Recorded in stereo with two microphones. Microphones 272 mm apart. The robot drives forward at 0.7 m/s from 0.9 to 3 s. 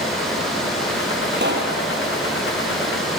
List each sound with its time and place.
1.3 s a pop: 40° right (ahead or behind), 2.5 m; by 1.8 s 45° right (ahead or behind), 2.5 m